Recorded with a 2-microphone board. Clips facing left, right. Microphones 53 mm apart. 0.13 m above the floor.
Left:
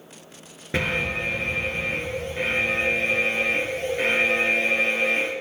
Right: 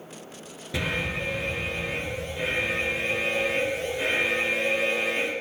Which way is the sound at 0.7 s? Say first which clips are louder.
Left 4 dB; 40° left (ahead or behind).